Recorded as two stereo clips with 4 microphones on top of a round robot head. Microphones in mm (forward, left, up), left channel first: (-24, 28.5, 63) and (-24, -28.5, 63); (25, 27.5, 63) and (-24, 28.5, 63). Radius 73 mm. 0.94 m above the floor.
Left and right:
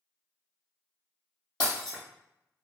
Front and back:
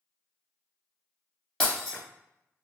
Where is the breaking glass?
80° left, 1.5 m.